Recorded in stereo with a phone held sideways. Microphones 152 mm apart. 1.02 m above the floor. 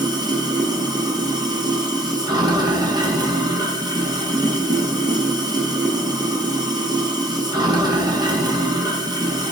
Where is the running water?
25° right (ahead or behind), 0.8 m.